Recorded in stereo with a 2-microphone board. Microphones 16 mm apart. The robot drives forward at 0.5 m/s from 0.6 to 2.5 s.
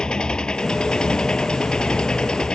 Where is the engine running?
60° left (ahead or behind); by 2.6 s 65° left (ahead or behind).